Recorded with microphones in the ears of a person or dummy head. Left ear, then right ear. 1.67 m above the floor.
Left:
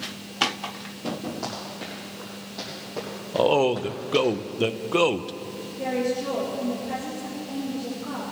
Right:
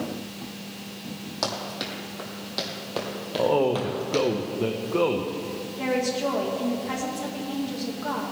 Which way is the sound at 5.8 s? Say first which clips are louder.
Right 1 dB; 60° right (ahead or behind).